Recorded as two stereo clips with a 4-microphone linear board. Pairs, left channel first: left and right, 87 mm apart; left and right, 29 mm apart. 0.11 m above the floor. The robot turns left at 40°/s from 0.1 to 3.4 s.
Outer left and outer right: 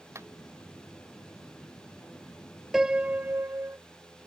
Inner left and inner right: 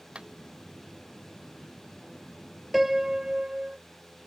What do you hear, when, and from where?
0.1 s a clap: 30° right (ahead or behind); by 0.3 s 35° right (ahead or behind)
2.7 s a piano: 5° right (ahead or behind); by 3.8 s 25° right (ahead or behind)